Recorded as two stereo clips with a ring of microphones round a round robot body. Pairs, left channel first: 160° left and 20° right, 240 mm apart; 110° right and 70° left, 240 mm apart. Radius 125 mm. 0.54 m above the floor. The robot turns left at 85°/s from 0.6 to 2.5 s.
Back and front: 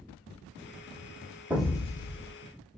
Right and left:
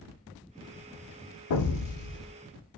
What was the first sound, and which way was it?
An explosion, 105° right.